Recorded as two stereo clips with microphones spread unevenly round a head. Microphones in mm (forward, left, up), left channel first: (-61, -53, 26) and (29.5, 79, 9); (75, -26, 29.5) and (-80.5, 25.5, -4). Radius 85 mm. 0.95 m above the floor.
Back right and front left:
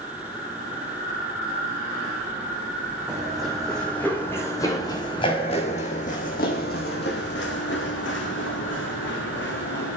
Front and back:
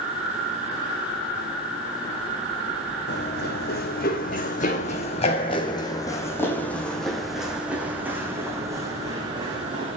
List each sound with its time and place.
3.1 s running footsteps: 35° right, 3 m; by 10.0 s 130° right, 4 m